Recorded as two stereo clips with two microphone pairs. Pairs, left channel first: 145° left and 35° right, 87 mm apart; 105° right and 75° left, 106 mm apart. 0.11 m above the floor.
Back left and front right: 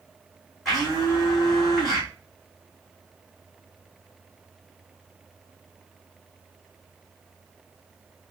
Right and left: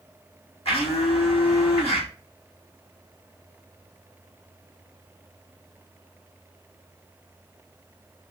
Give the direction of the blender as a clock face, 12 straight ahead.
4 o'clock.